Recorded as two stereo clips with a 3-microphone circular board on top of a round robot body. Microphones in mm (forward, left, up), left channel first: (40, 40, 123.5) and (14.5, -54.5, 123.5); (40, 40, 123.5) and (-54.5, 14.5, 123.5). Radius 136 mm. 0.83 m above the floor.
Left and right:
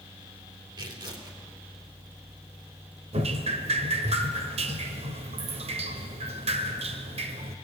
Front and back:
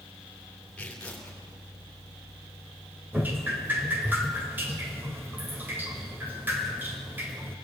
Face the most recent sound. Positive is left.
turn(degrees=-90)